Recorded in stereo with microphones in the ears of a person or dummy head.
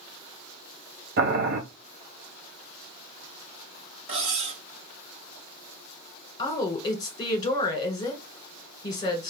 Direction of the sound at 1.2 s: 55° right (ahead or behind).